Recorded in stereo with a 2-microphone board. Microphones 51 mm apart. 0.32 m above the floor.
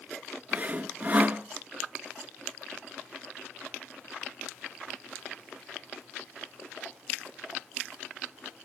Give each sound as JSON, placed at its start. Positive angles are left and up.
{"t": 0.5, "sound": "sawing", "side_deg": -35, "distance_m": 1.0}